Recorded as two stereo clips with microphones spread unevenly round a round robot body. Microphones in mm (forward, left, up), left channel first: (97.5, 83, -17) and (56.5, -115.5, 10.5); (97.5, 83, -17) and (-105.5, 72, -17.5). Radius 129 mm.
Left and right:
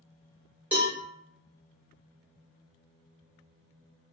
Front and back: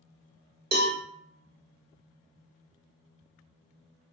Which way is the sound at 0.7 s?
165° left.